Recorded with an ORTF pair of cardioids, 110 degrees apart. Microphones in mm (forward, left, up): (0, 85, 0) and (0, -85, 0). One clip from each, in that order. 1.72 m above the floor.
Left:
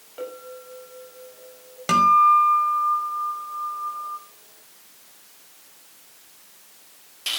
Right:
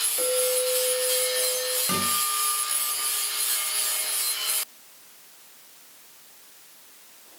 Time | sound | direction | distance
0.2 | a clink | 5° right | 7.5 m
1.9 | a guitar | 45° left | 5 m